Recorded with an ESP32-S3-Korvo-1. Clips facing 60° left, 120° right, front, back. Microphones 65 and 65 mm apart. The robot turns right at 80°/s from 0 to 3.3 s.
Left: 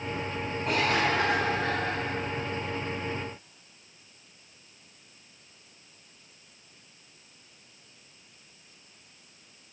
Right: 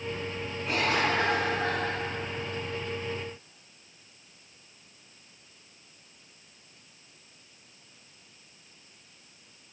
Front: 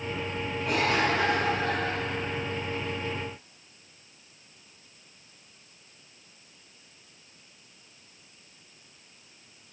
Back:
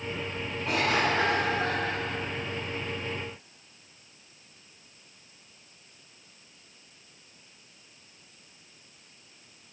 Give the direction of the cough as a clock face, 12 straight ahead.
9 o'clock.